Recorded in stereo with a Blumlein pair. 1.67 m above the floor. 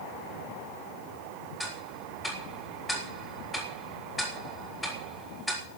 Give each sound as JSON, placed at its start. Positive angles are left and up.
{"t": 1.6, "sound": "ticking", "azimuth_deg": 5, "distance_m": 3.5}